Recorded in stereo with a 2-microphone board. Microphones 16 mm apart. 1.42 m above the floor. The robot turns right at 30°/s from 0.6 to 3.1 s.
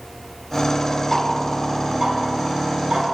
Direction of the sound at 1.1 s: 10° left (ahead or behind).